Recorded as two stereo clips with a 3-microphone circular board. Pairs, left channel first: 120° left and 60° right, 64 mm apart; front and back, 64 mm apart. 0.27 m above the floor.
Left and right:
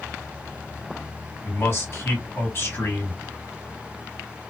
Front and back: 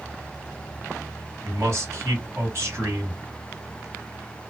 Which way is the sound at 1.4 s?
160° left.